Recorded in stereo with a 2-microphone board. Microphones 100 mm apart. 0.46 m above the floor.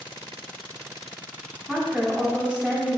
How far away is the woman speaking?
About 0.9 m.